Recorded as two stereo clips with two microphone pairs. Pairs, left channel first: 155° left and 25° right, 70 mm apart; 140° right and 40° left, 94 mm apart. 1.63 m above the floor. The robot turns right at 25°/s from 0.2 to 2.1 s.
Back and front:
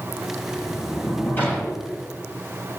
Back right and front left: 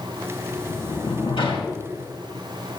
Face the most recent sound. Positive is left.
turn(degrees=-130)